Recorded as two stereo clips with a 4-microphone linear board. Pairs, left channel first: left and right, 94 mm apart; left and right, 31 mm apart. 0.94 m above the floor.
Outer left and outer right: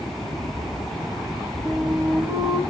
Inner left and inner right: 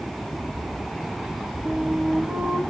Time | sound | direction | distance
1.6 | a flute | 10° right (ahead or behind) | 3 m